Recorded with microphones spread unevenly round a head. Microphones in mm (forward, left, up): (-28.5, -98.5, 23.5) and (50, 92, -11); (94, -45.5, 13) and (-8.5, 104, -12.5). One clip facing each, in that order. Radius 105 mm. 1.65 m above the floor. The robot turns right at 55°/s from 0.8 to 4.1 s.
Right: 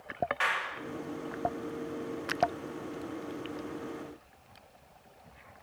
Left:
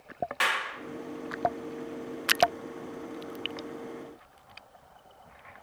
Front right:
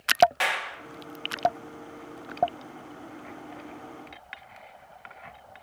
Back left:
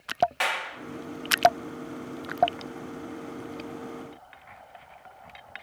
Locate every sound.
0.4 s a clap: 30° left, 2.5 m